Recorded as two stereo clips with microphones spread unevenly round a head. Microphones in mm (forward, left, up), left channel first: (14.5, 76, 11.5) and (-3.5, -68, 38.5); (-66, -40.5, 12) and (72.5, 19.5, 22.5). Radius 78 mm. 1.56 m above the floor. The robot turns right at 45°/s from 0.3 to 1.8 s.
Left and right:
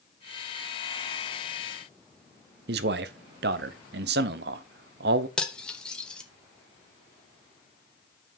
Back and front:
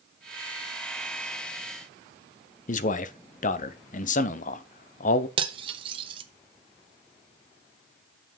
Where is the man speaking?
120° right, 0.8 m.